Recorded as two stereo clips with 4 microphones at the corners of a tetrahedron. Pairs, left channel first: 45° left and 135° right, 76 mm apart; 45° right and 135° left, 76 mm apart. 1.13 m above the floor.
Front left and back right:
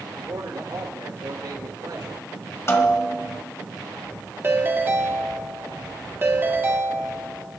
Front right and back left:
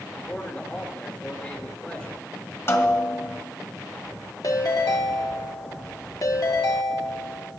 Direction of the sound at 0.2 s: 115° right.